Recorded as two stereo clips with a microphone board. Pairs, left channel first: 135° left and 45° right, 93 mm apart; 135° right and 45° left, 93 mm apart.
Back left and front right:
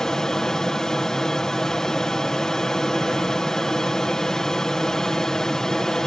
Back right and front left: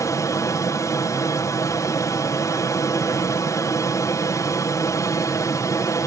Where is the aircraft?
145° right.